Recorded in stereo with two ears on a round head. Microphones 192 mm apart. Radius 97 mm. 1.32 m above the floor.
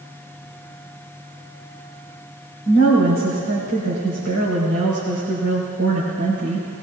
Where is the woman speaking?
65° right (ahead or behind), 4.5 m.